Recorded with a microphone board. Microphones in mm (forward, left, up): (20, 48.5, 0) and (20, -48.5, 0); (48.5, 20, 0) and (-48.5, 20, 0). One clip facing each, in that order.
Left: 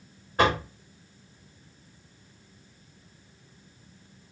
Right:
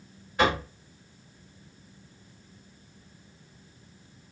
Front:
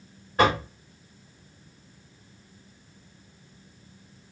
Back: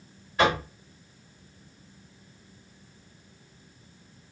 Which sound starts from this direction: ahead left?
Knocking, at 0.4 s.